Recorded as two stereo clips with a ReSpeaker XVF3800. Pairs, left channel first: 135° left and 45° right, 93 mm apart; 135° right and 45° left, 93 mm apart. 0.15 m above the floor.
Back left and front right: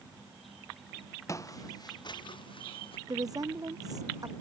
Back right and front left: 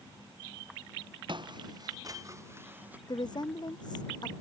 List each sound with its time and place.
1.3 s footsteps: 75° left; by 3.0 s 120° left
3.1 s a woman speaking: 95° right